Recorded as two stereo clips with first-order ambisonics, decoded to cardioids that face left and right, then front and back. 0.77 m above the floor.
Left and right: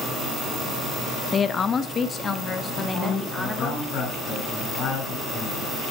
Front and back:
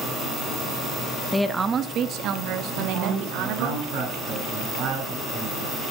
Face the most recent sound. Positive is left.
turn(degrees=140)